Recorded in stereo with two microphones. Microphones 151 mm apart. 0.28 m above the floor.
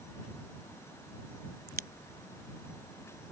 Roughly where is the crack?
Right.